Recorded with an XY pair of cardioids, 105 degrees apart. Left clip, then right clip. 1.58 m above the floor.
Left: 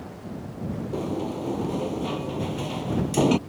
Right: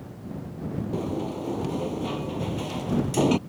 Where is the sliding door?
10° left.